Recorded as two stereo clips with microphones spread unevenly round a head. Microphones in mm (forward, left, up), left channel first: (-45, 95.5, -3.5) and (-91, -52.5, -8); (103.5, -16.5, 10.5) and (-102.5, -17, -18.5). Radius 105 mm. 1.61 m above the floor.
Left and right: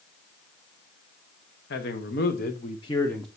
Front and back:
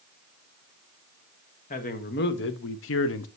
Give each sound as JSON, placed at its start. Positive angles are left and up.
{"t": 1.7, "sound": "a man speaking", "azimuth_deg": 55, "distance_m": 1.0}